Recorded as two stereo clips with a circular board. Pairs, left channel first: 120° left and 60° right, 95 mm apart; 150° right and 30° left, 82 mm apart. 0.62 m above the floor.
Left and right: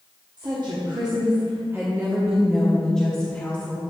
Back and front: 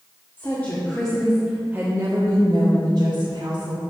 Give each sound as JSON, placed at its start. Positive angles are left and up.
{"t": 0.4, "sound": "a woman speaking", "azimuth_deg": -90, "distance_m": 1.3}